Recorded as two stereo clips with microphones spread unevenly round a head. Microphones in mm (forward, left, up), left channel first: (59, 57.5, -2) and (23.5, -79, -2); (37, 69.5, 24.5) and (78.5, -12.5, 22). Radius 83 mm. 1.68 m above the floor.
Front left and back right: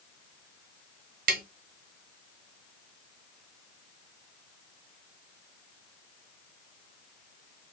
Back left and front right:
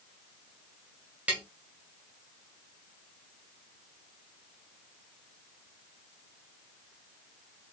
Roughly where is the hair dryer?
I don't hear a hair dryer.